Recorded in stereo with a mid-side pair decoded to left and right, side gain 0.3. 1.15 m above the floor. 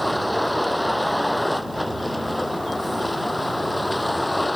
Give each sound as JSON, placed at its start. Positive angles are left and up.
{"t": 0.0, "sound": "a vehicle", "azimuth_deg": 5}